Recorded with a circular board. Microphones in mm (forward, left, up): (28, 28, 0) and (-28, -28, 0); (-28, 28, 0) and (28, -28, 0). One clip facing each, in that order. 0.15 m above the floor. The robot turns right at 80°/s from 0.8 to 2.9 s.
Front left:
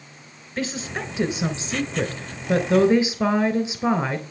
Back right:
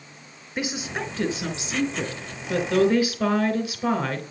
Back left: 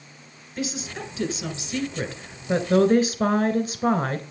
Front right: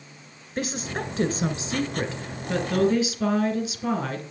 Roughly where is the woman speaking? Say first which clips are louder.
Front left 1 dB, front right 2 dB; ahead right.